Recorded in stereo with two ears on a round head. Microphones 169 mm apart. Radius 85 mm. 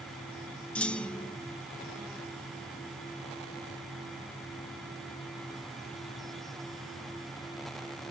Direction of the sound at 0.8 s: 5° left (ahead or behind).